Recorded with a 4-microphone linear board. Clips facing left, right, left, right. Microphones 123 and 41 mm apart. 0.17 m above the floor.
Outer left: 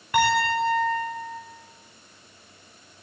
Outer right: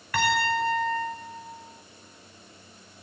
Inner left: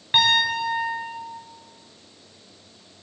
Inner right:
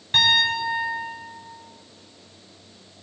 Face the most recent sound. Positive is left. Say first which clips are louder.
# outer left 3 dB, even
turn(degrees=25)  # may be behind; listen again after turning